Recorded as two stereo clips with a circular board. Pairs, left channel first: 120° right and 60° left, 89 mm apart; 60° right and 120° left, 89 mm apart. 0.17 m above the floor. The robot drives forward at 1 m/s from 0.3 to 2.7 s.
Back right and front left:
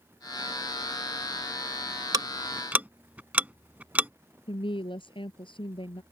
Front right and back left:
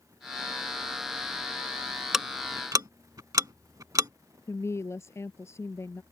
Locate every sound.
2.1 s ticking: 35° left; by 4.1 s 125° left
4.5 s a woman speaking: 120° right